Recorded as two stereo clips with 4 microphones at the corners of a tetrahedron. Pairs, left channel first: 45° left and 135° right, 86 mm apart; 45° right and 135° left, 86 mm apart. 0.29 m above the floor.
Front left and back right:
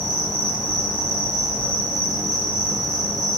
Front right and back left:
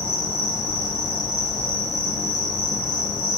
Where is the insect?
70° right, 1.0 m.